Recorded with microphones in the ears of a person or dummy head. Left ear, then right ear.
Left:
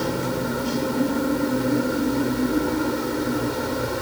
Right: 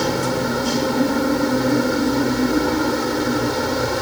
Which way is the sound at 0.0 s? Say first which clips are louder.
Right 5 dB; 35° right (ahead or behind).